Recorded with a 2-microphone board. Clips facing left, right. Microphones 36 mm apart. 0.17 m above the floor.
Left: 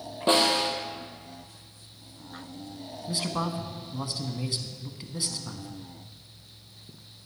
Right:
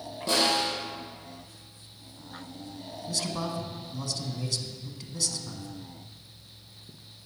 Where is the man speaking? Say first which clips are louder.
Left 2 dB; 25° left (ahead or behind), 1.1 m.